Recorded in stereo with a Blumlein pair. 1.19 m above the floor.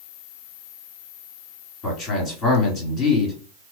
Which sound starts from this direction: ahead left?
A man speaking, at 1.8 s.